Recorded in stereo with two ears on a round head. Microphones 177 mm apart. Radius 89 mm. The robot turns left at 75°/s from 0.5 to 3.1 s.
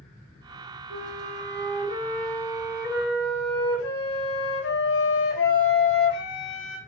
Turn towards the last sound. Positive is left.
turn(degrees=115)